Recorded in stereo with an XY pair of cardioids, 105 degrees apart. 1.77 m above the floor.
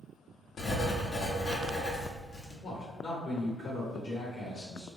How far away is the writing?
About 0.9 m.